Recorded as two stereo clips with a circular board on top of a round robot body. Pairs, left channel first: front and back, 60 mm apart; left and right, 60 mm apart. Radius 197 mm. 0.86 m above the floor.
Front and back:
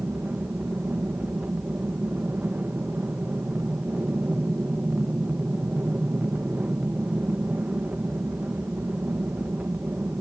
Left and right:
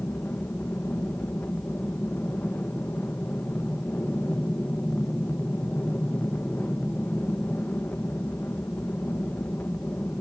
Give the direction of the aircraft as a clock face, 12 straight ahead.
8 o'clock.